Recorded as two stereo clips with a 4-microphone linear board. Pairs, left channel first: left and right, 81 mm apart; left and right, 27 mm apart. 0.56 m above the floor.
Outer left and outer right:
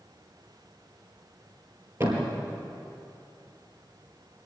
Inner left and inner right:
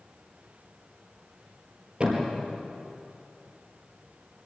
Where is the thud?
35° right (ahead or behind), 4.5 m.